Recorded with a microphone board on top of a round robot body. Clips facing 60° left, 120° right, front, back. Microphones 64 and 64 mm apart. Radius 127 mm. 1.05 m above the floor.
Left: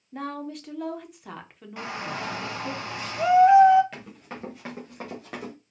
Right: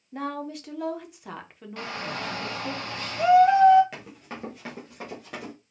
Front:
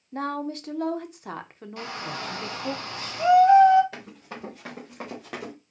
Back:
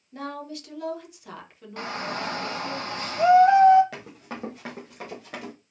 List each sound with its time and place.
0.1 s a woman speaking: 35° right, 0.9 m
1.8 s a shout: 140° left, 1.5 m
3.9 s running footsteps: 155° left, 1.5 m; by 5.5 s 10° left, 1.3 m